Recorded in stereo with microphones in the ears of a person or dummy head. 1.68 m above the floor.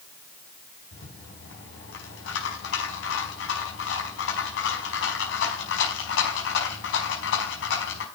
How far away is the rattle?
About 5 m.